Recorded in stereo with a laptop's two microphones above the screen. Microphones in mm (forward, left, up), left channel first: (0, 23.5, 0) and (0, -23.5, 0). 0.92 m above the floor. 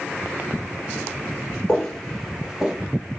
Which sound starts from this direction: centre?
Footsteps, at 1.7 s.